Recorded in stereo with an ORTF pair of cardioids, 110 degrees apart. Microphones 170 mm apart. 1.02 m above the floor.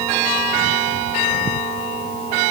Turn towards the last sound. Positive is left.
No sound to turn to.